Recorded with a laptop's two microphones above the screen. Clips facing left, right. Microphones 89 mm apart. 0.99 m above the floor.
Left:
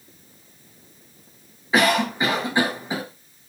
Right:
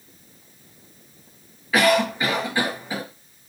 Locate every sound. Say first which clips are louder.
1.7 s a cough: right 1 dB; 20° left (ahead or behind), 0.7 m